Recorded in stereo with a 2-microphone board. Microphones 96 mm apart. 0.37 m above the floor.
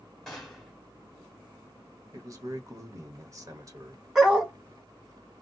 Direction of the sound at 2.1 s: 40° right (ahead or behind).